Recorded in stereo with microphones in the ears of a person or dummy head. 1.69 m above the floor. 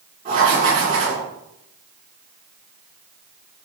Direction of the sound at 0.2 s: 30° right (ahead or behind).